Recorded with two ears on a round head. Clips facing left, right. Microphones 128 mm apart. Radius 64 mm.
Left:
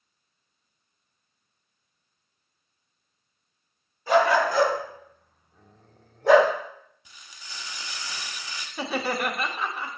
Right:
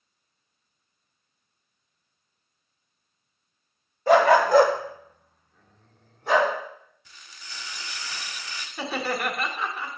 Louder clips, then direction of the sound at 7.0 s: Right 2 dB; 15° left (ahead or behind).